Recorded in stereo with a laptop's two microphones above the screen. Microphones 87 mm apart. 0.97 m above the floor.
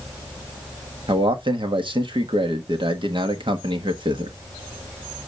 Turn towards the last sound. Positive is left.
turn(degrees=-70)  # may be behind; listen again after turning